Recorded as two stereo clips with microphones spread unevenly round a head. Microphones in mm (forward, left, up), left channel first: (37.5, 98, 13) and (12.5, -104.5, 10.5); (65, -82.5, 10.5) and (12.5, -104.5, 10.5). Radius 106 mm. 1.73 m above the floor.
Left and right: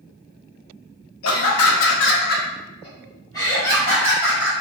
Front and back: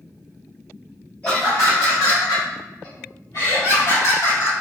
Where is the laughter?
100° left, 0.8 m; by 4.5 s 5° right, 2 m.